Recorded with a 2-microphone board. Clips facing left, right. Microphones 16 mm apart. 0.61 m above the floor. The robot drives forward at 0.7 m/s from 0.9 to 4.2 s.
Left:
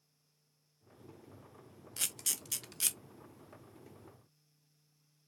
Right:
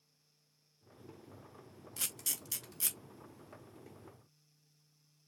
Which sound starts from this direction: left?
A camera shutter, at 2.0 s.